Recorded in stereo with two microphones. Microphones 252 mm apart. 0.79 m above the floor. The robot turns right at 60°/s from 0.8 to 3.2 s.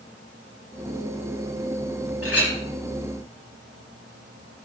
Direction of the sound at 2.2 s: 65° left (ahead or behind).